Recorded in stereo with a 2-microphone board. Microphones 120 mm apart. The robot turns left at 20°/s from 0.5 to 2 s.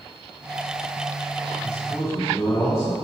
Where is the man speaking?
30° left (ahead or behind), 1.3 m; by 2.9 s 25° left (ahead or behind), 1.3 m.